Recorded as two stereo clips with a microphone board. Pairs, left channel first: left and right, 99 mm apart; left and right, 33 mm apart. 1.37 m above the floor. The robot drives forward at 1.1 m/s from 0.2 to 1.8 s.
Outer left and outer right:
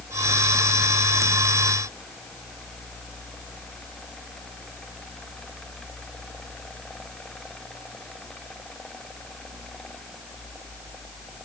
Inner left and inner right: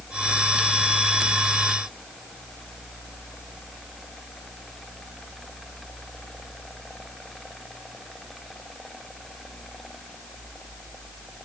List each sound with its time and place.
Only background noise.